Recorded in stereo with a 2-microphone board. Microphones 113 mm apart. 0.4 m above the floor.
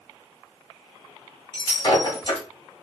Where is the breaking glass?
40° left (ahead or behind), 1.9 m.